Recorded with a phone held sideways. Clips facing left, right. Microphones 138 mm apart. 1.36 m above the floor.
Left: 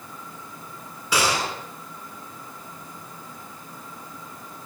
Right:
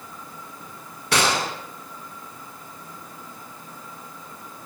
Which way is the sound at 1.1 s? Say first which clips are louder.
Right 1 dB; 85° right.